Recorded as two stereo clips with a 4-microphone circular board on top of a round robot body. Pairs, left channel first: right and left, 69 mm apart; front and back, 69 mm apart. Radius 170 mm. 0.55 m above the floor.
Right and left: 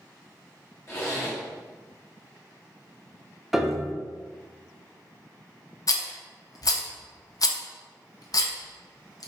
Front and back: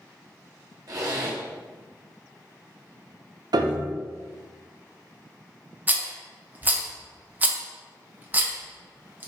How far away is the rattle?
About 0.9 m.